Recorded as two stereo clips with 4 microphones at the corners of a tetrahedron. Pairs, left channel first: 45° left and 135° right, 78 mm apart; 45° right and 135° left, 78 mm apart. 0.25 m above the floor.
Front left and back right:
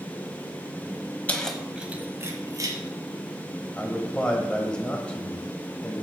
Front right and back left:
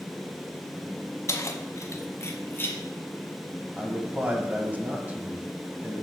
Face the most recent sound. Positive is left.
turn(degrees=105)